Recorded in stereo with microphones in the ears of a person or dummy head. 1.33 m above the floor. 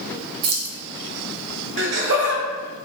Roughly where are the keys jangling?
Right.